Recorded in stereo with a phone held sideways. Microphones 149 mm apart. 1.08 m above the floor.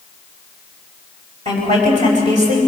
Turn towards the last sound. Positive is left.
turn(degrees=-50)  # may be behind; listen again after turning